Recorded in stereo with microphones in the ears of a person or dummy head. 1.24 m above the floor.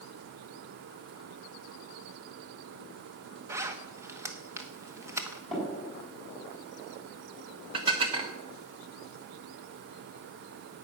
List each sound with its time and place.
3.5 s a zipper: 15° right (ahead or behind), 1.1 m
5.5 s tapping: centre (ahead or behind), 6 m
7.7 s dishes clattering: 30° right (ahead or behind), 1.4 m